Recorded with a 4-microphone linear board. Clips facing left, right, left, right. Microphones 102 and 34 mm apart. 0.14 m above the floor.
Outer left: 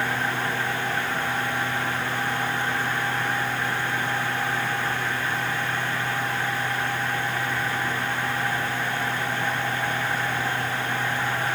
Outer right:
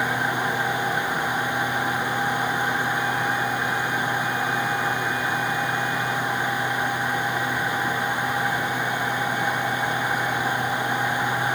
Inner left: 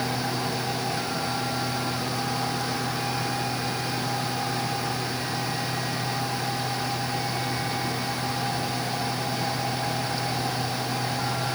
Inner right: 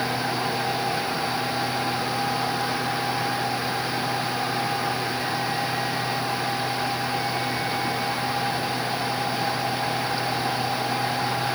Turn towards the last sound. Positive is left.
No sound to turn to.